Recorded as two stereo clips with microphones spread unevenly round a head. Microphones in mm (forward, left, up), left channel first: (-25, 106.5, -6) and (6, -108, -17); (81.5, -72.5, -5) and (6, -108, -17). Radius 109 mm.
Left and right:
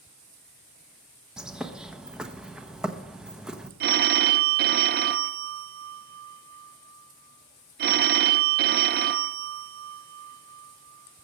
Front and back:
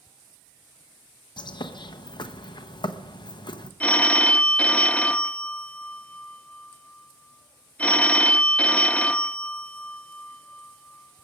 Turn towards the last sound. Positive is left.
turn(degrees=-40)